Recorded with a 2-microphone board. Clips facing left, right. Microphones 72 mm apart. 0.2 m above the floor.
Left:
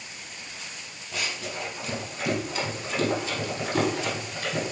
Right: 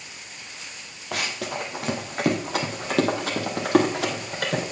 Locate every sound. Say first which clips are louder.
1.1 s running footsteps: right 4 dB; 75° right (ahead or behind), 2 m; by 4.6 s 80° right, 4.5 m